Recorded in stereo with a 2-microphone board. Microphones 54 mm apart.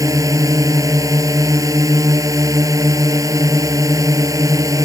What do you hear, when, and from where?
0.0 s a drone: 80° right